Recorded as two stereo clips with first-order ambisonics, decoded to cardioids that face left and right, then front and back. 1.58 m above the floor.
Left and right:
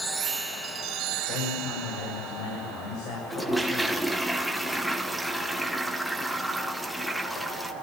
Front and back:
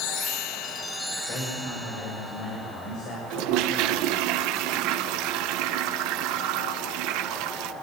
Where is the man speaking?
50° left, 6 m.